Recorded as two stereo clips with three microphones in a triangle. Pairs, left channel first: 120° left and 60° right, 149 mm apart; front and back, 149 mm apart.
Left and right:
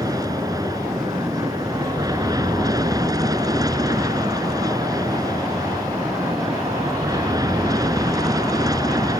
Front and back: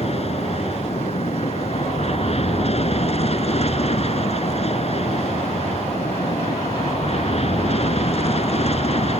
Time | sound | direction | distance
0.0 | an aircraft | 5° right | ?